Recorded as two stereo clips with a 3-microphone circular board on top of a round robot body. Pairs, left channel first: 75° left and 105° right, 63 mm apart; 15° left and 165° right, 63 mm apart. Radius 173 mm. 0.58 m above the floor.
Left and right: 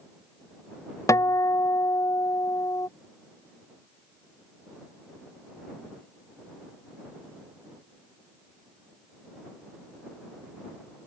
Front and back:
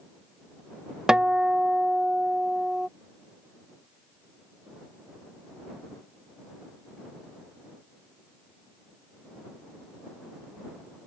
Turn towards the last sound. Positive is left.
turn(degrees=115)